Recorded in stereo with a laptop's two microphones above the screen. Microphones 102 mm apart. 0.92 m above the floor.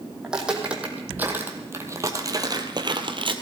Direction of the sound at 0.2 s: 5° right (ahead or behind).